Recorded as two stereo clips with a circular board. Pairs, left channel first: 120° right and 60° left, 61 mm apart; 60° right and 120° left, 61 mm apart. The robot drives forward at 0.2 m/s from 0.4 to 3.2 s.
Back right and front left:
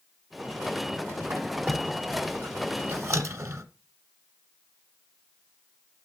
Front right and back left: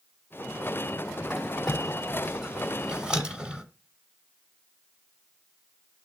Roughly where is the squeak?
Ahead left.